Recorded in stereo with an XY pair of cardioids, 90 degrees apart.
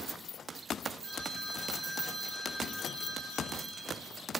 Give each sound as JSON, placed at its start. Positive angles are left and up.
{"t": 1.0, "sound": "a phone ringing", "azimuth_deg": -40, "distance_m": 3.5}